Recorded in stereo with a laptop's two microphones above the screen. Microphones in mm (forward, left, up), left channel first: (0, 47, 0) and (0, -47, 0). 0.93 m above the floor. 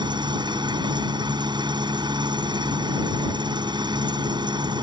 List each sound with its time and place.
0.0 s an engine running: 55° right (ahead or behind)